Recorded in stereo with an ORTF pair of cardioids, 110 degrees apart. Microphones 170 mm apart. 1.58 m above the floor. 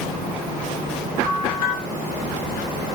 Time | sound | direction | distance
1.2 | a bell | 60° left | 1.7 m